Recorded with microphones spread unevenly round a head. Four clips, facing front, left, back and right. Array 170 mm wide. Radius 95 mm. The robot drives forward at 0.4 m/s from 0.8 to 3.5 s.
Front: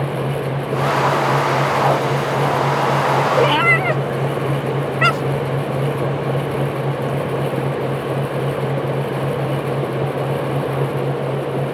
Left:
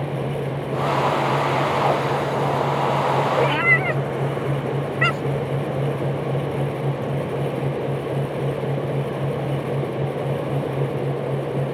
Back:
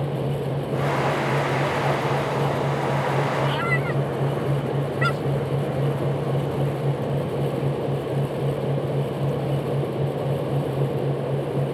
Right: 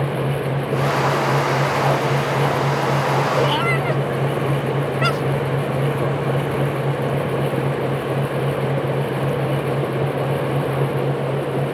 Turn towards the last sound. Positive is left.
turn(degrees=-10)